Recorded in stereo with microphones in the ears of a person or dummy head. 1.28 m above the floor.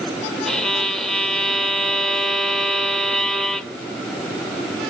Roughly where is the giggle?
I don't hear a giggle.